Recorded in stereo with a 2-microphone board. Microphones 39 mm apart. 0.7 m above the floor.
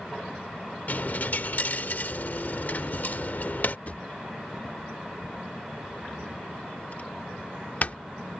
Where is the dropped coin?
50° left (ahead or behind).